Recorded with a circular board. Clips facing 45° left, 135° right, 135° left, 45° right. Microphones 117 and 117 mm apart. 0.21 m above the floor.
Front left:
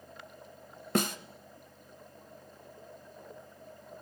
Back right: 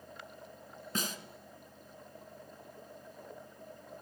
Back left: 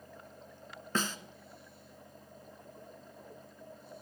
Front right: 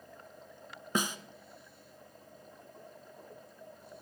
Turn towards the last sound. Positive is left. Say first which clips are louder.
# front left 9 dB, front right 1 dB
turn(degrees=30)